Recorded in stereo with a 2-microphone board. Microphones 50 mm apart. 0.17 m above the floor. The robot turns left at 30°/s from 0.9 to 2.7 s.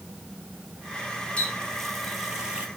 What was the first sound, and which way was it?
A running tap, 20° left.